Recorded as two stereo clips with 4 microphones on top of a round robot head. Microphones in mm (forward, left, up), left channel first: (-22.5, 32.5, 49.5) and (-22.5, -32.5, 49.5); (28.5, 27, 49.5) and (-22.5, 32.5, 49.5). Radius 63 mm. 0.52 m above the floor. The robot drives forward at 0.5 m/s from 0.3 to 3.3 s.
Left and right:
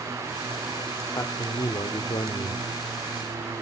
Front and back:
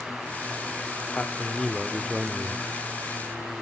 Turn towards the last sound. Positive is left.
turn(degrees=115)